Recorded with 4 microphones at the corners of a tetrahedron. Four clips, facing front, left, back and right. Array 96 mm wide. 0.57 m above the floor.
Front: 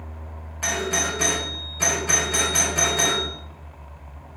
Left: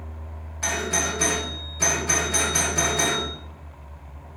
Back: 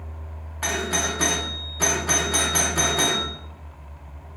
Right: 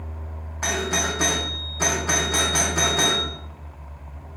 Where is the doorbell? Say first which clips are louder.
Right 2 dB, even; 110° right, 1.1 m.